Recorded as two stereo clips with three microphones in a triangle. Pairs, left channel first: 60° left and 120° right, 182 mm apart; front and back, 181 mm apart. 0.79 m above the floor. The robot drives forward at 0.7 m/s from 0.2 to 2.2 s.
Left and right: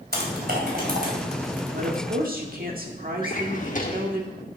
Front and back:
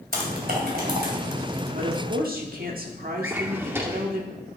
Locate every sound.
0.1 s typing on a keyboard: 145° right, 2 m; by 1.1 s 155° right, 3 m
1.7 s a woman speaking: 140° right, 1.2 m; by 4.2 s 150° right, 1.5 m
3.2 s a drawer: 100° left, 1.1 m